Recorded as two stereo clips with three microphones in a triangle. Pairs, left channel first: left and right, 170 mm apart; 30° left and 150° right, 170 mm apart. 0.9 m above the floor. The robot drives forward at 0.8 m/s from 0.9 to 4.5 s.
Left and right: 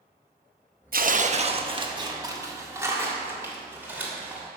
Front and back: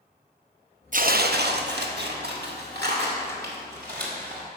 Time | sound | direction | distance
0.9 | tearing paper | 115° right | 0.6 m